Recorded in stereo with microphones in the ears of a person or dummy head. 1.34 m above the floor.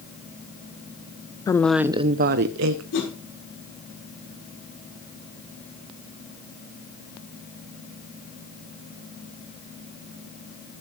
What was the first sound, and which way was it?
A woman speaking, 20° left (ahead or behind).